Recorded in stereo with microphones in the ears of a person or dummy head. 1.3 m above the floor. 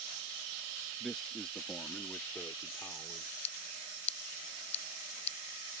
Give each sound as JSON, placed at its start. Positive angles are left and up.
{"t": 1.0, "sound": "a man speaking", "side_deg": 0}
{"t": 3.4, "sound": "scissors", "side_deg": 35}